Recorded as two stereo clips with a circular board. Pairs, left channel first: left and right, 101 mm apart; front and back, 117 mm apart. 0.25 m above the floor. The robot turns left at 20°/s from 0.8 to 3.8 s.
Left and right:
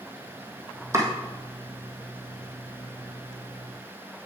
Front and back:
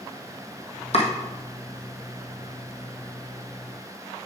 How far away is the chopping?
About 2.0 m.